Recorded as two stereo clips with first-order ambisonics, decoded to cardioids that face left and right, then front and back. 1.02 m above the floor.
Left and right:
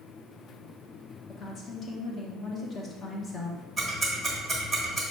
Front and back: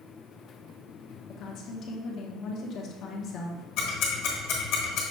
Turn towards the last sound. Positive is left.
turn(degrees=-5)